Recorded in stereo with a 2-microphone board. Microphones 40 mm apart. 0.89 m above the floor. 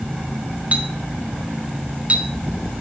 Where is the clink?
35° right (ahead or behind), 1.4 m.